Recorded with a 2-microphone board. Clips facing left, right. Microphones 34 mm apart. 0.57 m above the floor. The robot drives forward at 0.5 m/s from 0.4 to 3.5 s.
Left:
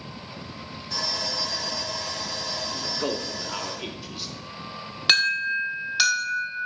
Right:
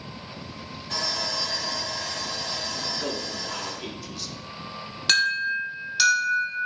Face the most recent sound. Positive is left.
turn(degrees=15)  # may be behind; listen again after turning